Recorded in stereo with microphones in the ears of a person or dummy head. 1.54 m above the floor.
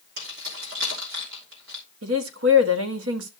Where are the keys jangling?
75° right (ahead or behind), 3 m.